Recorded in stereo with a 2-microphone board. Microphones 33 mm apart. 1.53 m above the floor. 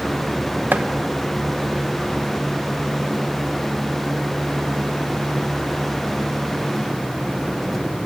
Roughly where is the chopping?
Right.